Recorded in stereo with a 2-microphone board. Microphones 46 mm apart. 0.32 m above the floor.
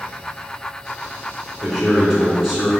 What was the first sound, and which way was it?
A man speaking, 5° right (ahead or behind).